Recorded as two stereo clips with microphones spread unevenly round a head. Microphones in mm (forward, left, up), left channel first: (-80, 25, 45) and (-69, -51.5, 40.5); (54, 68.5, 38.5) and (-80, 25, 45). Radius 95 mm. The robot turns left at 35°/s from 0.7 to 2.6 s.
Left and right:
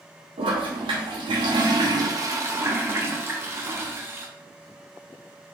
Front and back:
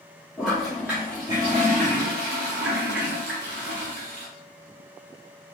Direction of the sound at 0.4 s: 75° right.